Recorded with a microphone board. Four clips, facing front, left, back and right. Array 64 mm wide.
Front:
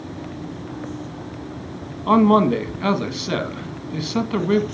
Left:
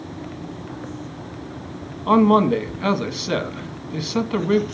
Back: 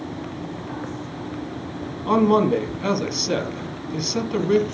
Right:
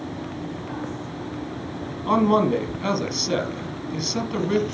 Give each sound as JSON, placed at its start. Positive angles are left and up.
{"t": 2.1, "sound": "a man speaking", "azimuth_deg": 45, "distance_m": 1.4}